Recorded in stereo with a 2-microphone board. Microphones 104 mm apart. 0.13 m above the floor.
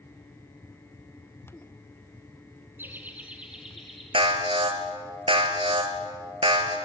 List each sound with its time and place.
2.8 s laughter: 20° right (ahead or behind), 1.7 m; by 4.0 s centre (ahead or behind), 2 m
4.1 s an alarm: 60° right (ahead or behind), 2 m